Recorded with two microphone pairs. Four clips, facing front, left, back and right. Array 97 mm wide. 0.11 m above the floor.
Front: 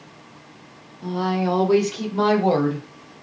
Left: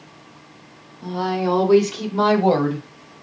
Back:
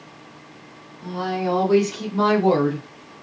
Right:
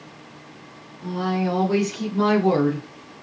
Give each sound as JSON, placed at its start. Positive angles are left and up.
{"t": 1.0, "sound": "a woman speaking", "azimuth_deg": 40, "distance_m": 3.0}